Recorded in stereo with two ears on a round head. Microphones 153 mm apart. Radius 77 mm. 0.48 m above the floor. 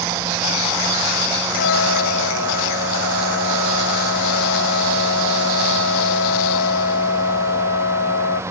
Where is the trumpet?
85° left.